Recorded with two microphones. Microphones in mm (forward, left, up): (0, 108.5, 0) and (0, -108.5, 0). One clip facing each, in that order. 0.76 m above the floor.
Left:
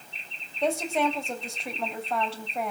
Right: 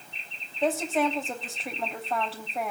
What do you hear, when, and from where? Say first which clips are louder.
0.6 s a woman speaking: even; centre (ahead or behind), 3.5 m